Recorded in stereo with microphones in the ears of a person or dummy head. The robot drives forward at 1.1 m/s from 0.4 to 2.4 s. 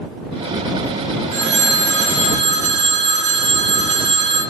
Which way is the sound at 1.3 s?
70° right (ahead or behind).